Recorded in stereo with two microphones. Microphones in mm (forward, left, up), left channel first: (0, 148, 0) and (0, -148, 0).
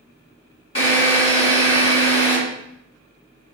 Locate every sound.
0.8 s a drill: 55° left (ahead or behind), 4 m